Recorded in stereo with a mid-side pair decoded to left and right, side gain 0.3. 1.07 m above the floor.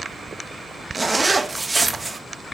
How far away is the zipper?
About 1.3 m.